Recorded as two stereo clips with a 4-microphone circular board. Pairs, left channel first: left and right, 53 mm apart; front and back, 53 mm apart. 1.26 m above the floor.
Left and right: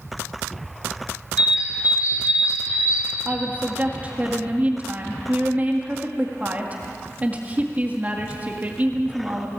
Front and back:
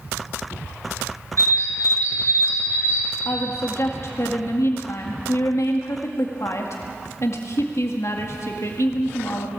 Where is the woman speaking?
30° right, 1.8 m.